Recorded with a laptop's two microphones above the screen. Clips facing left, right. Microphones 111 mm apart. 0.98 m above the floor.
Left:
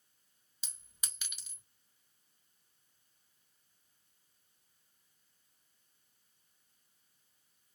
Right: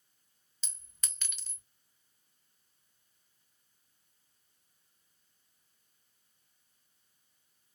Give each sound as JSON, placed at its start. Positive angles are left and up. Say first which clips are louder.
{"t": 0.6, "sound": "a clink", "louder": "even", "side_deg": 10, "distance_m": 0.7}